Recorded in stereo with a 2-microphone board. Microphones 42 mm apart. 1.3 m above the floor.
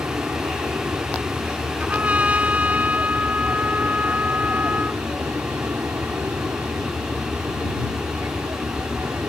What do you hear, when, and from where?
0.0 s an aircraft: 70° right (ahead or behind)
1.8 s a trumpet: 35° right (ahead or behind)